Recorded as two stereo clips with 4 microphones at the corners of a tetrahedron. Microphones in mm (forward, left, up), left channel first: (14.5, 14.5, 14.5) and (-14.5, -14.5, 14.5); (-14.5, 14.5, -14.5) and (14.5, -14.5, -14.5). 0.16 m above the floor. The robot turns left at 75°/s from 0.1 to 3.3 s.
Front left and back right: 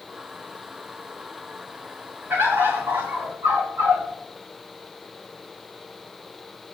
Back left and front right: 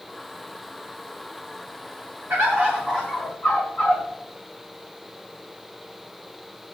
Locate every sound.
2.3 s a bird: 85° right, 9.5 m; by 4.0 s 160° right, 9.5 m